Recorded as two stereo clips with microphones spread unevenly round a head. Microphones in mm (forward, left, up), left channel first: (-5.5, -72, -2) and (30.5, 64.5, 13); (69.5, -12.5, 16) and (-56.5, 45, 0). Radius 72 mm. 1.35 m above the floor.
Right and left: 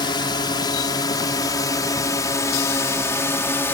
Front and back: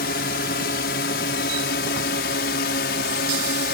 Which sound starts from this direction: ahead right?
A drone, at 0.0 s.